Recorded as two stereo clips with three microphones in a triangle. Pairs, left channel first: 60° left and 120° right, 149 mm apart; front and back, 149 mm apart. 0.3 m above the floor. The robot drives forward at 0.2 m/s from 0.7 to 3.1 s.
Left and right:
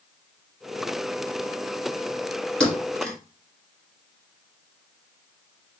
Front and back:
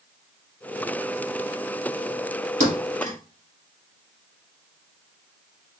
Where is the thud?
145° left, 2.5 m.